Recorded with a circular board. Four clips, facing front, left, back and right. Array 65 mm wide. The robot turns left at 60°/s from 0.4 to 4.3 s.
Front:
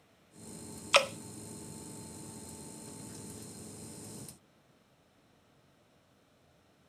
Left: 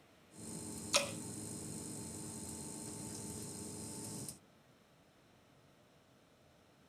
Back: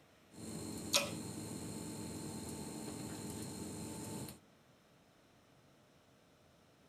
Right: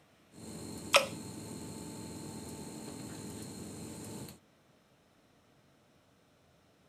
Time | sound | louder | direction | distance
0.9 | dripping | right 9 dB, front 13 dB | 35° right | 0.6 m